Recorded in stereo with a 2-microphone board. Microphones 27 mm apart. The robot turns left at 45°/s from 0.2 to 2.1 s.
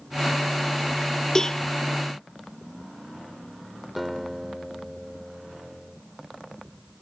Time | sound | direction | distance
1.4 | a cowbell | 20° left (ahead or behind) | ?
4.0 | a guitar | centre (ahead or behind) | ?